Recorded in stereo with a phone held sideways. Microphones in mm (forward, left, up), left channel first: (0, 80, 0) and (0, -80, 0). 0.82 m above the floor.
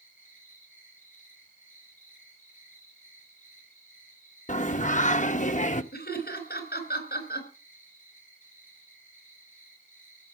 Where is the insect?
55° left (ahead or behind), 9.5 m.